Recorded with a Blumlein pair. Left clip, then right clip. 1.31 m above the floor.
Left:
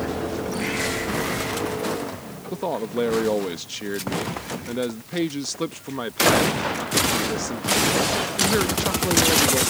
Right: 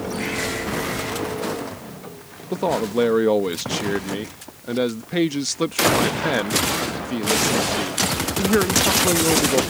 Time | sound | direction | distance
2.5 | a man speaking | 15° right | ?